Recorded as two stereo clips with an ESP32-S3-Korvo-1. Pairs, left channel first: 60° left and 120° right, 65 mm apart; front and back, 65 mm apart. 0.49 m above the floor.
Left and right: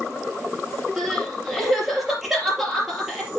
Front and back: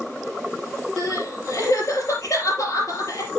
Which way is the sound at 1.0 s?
30° right.